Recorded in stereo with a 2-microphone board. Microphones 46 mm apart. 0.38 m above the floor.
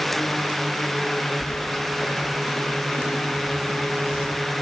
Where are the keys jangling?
30° left (ahead or behind), 0.6 m; by 4.3 s 30° right (ahead or behind), 3.5 m.